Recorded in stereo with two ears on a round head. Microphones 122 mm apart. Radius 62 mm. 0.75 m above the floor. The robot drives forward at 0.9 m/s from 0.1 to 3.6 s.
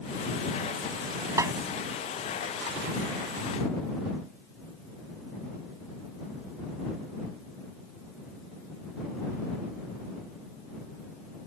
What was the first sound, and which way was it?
A snare drum, 25° right (ahead or behind).